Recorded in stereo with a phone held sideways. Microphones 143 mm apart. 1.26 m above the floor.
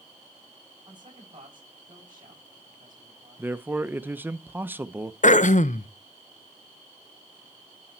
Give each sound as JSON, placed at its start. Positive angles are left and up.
{"t": 0.9, "sound": "a man speaking", "side_deg": -30, "distance_m": 7.0}
{"t": 3.4, "sound": "a man speaking", "side_deg": -15, "distance_m": 0.7}
{"t": 5.2, "sound": "throat clearing", "side_deg": 60, "distance_m": 0.5}